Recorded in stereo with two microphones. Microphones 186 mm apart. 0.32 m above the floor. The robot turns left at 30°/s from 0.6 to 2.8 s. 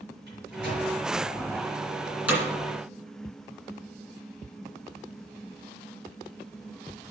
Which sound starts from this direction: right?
A microwave, at 0.3 s.